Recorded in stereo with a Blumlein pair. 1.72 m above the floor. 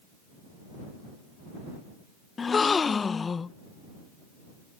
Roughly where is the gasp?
Ahead.